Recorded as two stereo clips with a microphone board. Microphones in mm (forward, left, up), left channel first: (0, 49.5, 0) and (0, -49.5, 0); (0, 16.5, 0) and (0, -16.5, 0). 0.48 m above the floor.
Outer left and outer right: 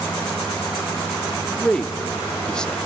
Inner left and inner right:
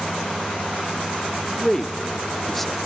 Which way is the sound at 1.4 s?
10° left (ahead or behind).